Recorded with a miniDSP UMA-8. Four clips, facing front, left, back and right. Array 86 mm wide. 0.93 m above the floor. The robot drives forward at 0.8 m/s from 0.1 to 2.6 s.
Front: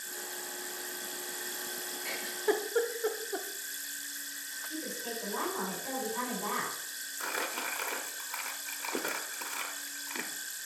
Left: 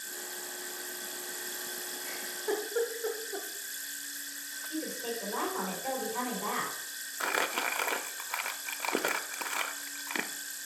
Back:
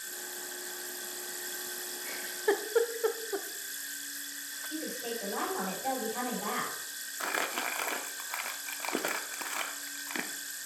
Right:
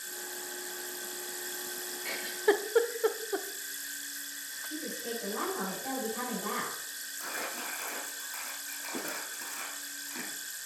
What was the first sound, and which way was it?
A giggle, 50° right.